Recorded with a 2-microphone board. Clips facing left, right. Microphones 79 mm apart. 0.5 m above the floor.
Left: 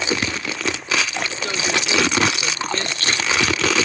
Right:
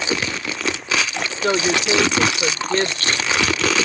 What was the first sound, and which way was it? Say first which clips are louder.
A woman speaking: right 7 dB; 50° right (ahead or behind).